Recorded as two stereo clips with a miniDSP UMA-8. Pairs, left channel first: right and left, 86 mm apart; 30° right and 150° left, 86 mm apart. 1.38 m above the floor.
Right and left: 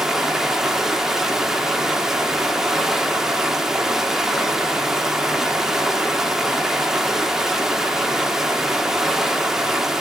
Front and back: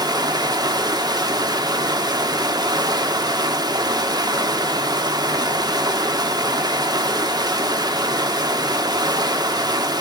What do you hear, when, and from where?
0.0 s running water: 175° left, 1.3 m